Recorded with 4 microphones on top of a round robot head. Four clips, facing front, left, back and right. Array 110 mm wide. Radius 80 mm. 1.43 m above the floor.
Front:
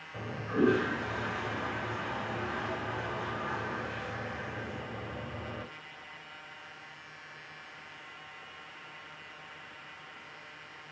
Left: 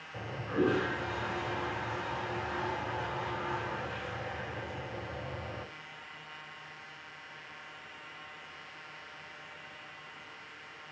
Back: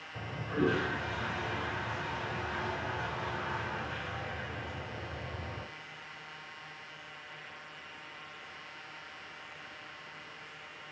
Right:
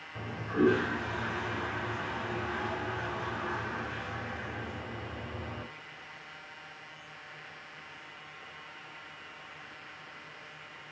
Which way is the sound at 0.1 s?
45° left.